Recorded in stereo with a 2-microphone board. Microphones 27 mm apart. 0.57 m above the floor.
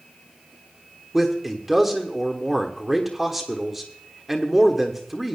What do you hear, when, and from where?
1.1 s a man speaking: 5° right (ahead or behind), 1.1 m